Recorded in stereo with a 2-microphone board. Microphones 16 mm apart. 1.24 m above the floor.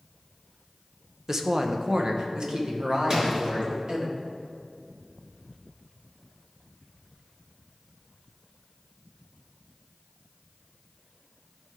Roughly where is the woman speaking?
Right.